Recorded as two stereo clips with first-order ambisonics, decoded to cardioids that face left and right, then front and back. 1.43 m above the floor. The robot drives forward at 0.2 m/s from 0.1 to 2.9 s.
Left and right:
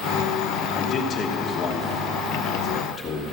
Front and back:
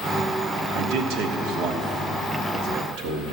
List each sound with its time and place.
0.8 s a man speaking: 150° left, 1.1 m; by 3.3 s 160° left, 1.5 m